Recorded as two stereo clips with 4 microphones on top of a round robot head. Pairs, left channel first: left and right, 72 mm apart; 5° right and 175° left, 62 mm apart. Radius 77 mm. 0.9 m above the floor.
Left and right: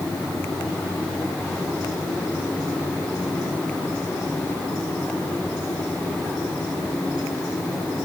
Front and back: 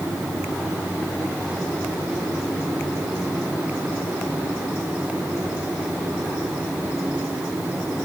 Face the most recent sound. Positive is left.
No sound to turn to.